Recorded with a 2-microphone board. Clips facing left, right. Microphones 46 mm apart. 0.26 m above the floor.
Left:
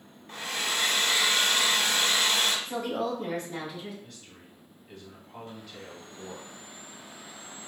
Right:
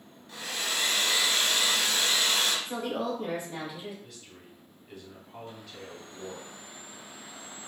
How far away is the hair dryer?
About 0.8 m.